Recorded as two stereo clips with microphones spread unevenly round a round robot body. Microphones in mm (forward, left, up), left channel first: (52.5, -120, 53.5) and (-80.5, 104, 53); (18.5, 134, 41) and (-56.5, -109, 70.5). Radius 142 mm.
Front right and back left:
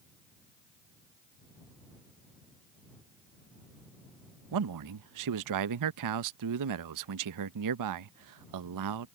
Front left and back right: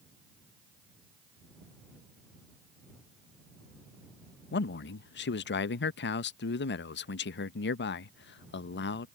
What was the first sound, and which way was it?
A man speaking, 120° left.